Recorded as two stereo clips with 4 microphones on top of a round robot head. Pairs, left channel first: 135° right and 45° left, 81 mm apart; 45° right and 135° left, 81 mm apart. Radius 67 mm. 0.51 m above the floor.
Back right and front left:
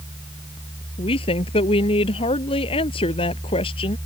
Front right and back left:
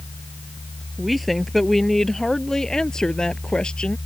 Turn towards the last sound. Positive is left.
turn(degrees=-125)